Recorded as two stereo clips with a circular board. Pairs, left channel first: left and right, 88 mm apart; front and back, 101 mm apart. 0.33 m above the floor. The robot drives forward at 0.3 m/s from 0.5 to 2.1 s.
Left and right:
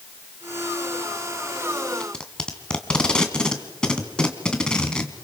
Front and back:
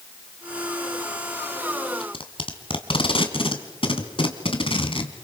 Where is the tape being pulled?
10° left, 2.5 m.